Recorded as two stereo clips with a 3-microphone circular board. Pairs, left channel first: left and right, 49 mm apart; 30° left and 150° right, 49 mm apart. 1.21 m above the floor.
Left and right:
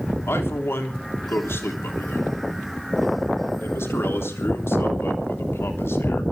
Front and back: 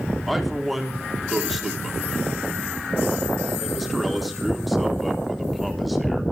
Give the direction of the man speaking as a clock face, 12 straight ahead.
8 o'clock.